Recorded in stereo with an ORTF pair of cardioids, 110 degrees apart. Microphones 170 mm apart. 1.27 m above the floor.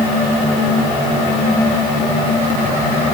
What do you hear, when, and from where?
Only background noise.